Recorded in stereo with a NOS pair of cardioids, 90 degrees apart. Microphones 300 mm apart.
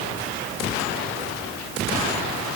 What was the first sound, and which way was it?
Only background noise.